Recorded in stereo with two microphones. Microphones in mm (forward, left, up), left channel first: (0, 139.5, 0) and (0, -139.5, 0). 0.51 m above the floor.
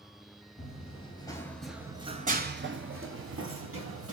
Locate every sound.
0.6 s running footsteps: 25° left (ahead or behind), 0.9 m; by 4.1 s 50° right (ahead or behind), 1.2 m